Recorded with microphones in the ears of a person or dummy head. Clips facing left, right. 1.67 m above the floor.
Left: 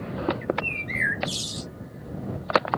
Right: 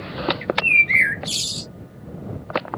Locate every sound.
0.4 s a bird: 30° right (ahead or behind)